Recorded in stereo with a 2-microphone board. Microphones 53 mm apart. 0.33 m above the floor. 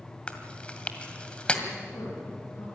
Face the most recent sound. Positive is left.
turn(degrees=75)  # may be behind; listen again after turning